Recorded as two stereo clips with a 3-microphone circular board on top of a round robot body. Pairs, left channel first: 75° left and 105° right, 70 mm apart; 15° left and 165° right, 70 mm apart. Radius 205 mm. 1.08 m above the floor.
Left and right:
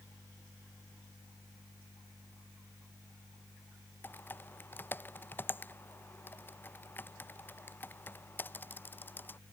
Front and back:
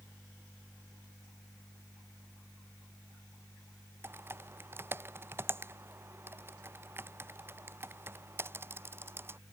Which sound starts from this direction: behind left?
Typing on a keyboard, at 4.0 s.